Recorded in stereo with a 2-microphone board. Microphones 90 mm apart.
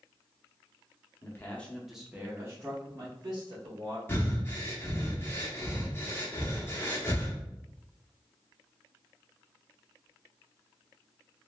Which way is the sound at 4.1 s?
25° left (ahead or behind).